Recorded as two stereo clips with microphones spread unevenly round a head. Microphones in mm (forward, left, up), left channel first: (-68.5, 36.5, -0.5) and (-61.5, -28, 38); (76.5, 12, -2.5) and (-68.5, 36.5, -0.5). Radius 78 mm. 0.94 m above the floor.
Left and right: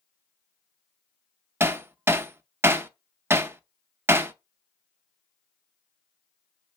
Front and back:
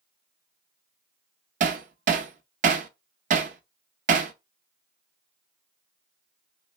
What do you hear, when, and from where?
1.6 s hammering: 145° right, 0.5 m